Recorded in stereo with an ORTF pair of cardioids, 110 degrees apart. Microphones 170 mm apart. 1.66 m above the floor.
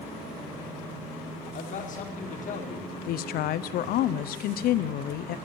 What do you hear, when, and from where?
1.5 s a man speaking: 50° left, 1.8 m
3.1 s a woman speaking: 65° left, 0.5 m